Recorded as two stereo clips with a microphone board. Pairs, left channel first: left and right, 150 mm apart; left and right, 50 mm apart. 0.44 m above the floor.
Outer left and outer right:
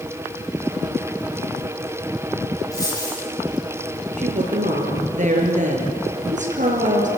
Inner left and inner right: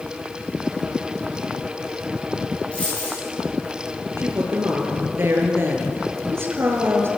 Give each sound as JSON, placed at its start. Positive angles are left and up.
{"t": 2.7, "sound": "a dropped coin", "side_deg": 25, "distance_m": 8.5}
{"t": 4.2, "sound": "a woman speaking", "side_deg": -55, "distance_m": 6.5}